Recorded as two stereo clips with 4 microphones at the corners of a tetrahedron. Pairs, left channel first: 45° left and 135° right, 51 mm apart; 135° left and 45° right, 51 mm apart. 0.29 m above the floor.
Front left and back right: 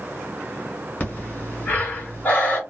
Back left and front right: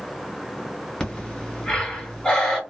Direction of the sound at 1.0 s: 60° left.